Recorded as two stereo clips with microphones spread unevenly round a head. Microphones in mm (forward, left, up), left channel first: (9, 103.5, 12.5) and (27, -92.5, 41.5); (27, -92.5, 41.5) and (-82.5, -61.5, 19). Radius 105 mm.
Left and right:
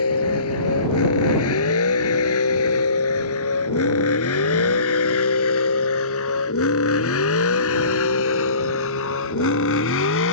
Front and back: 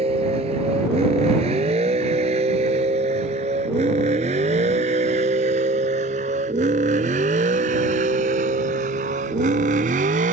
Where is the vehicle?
105° left; by 10.3 s 125° left.